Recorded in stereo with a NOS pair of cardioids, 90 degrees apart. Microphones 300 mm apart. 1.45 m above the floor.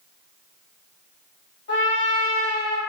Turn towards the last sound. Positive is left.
turn(degrees=40)